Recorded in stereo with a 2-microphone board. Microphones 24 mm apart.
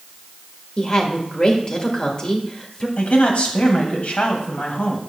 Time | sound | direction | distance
0.8 | a woman speaking | 45° left (ahead or behind) | 1.5 m
3.0 | a man speaking | 65° left (ahead or behind) | 2.5 m